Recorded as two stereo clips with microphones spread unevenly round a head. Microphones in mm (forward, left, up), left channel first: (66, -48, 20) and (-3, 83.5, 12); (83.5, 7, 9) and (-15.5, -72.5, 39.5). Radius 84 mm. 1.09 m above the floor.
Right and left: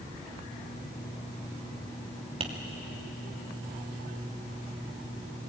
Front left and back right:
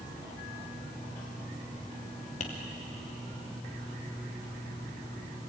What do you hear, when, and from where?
2.4 s tapping: 70° left, 2.5 m